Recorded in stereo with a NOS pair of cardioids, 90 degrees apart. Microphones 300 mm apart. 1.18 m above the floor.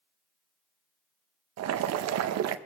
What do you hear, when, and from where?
1.6 s boiling: 65° right, 0.8 m